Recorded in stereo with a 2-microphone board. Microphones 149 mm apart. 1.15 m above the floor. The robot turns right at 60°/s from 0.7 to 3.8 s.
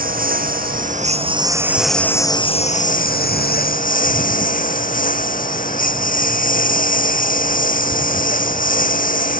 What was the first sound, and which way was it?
A lawn mower, 70° right.